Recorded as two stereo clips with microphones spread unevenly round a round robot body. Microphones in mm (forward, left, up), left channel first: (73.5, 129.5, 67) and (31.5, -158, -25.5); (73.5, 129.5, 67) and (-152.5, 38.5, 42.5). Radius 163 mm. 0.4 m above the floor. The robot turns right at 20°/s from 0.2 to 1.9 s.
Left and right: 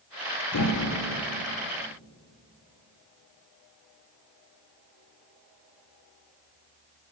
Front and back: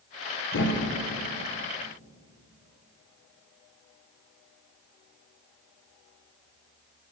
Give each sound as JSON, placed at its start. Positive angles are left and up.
{"t": 0.5, "sound": "a thud", "azimuth_deg": 60, "distance_m": 1.0}